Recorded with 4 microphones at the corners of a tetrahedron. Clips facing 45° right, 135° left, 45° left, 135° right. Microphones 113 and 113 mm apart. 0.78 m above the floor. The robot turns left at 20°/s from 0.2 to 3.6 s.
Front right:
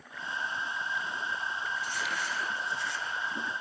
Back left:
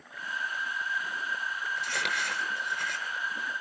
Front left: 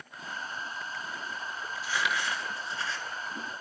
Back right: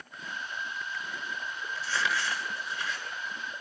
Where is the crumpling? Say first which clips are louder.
Back left 1 dB, even; 125° left, 8.5 m; by 3.0 s 100° left, 8.5 m.